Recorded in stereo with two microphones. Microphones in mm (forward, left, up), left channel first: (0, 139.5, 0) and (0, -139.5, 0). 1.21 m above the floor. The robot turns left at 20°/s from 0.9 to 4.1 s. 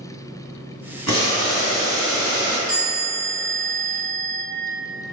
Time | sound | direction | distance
1.1 | boiling | 115° right | 1.5 m
2.7 | a chime | 40° right (ahead or behind) | 1.5 m